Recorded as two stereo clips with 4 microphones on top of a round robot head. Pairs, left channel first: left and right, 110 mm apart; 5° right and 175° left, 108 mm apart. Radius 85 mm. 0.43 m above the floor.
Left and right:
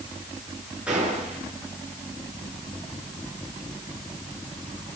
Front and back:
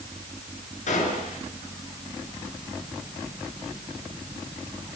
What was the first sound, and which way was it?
A gunshot, 5° right.